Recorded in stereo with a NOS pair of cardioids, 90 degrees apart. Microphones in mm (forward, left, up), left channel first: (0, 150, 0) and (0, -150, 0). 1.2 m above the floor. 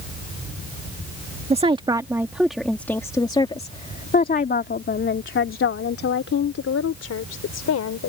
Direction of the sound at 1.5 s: 20° right.